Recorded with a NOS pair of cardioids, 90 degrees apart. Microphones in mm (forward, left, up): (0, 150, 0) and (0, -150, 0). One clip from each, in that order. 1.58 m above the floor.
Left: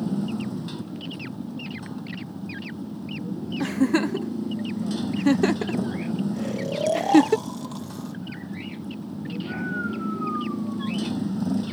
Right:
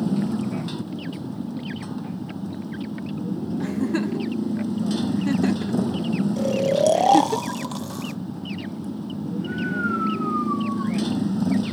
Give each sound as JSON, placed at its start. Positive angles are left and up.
{"t": 0.0, "sound": "a motorcycle", "azimuth_deg": -25}
{"t": 3.6, "sound": "a giggle", "azimuth_deg": 35}
{"t": 6.4, "sound": "snoring", "azimuth_deg": -45}